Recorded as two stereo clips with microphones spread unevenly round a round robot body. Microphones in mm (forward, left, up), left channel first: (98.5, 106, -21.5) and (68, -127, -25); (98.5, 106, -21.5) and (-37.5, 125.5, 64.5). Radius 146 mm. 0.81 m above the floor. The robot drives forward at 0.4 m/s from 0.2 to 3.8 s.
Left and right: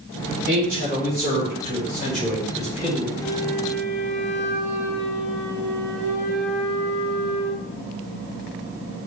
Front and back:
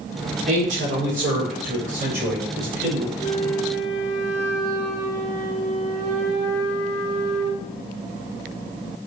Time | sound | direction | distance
0.5 | a man speaking | 160° right | 2 m
3.2 | a flute | straight behind | 2 m